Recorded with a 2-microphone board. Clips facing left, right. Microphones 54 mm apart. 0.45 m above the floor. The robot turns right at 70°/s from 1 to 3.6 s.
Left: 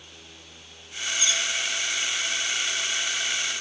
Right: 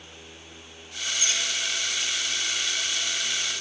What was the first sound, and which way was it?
Cutlery clinking, 35° right (ahead or behind).